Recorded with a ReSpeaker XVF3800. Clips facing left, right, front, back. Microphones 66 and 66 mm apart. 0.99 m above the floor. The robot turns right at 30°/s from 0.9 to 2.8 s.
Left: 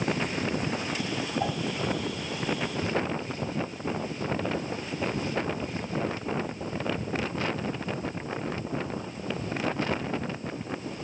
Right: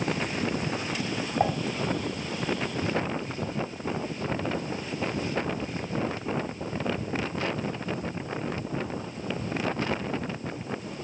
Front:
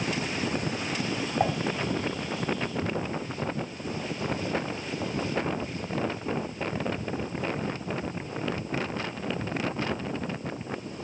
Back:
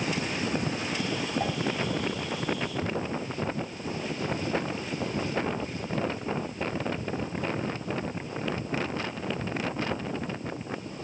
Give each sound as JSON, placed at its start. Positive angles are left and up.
{"t": 1.4, "sound": "dishes clattering", "azimuth_deg": -55, "distance_m": 1.6}